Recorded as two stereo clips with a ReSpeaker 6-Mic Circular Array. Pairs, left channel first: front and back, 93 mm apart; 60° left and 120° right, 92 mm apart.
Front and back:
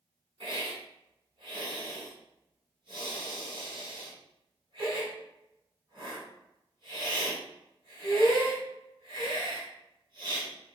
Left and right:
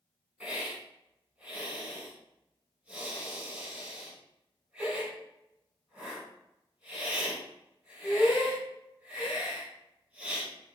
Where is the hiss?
165° left, 3.5 m.